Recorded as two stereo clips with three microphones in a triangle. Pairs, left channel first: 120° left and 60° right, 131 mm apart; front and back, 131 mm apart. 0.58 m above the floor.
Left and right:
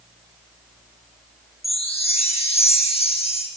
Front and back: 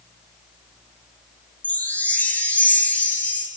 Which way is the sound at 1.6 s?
80° left.